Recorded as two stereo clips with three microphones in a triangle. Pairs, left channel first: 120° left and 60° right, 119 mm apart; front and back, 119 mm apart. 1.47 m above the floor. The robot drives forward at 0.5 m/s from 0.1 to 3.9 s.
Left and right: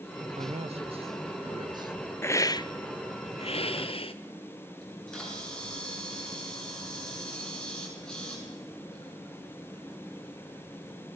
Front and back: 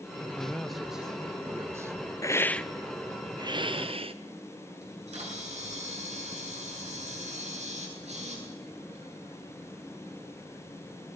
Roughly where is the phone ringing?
No phone ringing in this recording.